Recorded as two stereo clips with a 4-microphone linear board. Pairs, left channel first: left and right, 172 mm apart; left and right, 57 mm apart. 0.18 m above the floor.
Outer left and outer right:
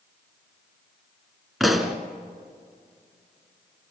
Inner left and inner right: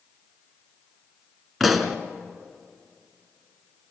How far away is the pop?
About 1.7 m.